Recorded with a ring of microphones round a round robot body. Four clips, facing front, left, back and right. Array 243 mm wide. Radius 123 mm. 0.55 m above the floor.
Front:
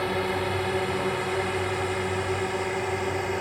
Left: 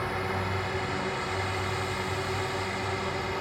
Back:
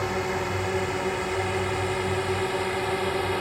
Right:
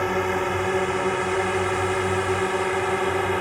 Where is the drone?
80° right; by 3.4 s 95° right.